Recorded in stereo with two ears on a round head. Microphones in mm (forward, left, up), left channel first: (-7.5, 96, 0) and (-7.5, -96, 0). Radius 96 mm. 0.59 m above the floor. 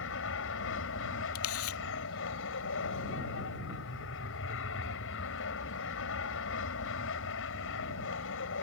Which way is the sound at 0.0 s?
65° left (ahead or behind).